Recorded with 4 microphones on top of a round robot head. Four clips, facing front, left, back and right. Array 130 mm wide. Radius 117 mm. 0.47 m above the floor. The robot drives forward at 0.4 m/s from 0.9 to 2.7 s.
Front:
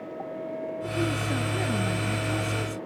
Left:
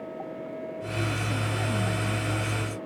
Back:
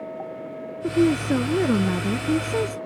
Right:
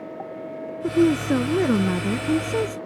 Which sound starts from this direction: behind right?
A woman speaking, at 0.8 s.